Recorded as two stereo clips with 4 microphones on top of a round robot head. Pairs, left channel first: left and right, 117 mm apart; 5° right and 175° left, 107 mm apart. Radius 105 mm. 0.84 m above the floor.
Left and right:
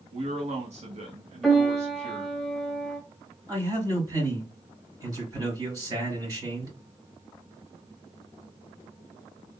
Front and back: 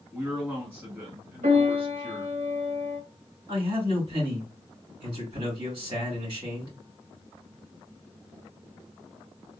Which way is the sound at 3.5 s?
150° right.